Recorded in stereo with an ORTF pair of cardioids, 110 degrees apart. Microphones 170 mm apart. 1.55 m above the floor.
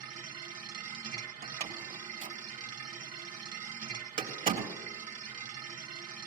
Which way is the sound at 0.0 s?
55° right.